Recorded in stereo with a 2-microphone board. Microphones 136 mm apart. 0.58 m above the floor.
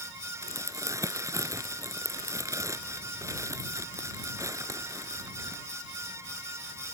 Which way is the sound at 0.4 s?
25° right (ahead or behind).